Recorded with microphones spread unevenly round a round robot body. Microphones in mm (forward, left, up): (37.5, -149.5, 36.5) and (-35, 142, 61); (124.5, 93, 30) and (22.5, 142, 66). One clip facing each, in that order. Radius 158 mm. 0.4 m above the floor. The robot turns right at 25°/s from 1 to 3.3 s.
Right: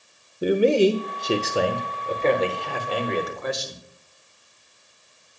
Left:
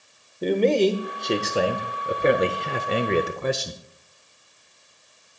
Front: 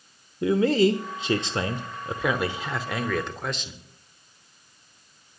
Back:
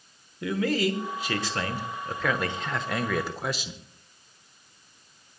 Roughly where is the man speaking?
Ahead.